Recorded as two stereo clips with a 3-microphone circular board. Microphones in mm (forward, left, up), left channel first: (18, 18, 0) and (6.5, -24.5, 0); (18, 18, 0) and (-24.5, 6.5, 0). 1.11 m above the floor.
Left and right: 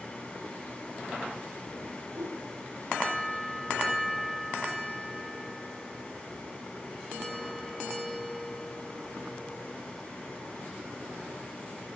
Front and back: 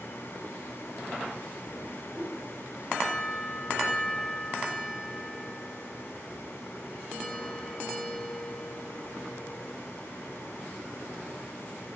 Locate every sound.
2.1 s a whoosh: 100° right, 3 m